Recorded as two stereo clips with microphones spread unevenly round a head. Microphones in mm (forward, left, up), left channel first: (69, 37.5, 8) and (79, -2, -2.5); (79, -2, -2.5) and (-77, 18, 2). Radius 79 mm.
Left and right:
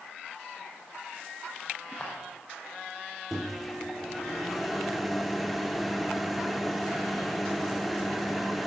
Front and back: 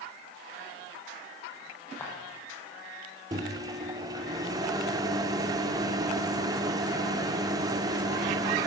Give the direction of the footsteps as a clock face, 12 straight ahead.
10 o'clock.